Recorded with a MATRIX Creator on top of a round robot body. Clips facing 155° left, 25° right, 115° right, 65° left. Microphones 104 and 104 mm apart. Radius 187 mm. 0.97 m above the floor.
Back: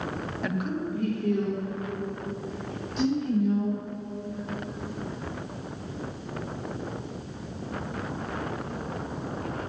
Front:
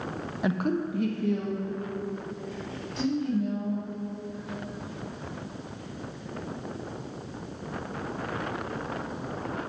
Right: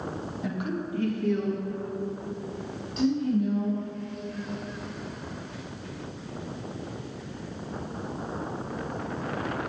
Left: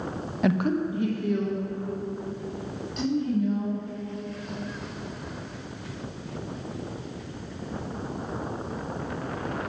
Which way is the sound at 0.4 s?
55° left.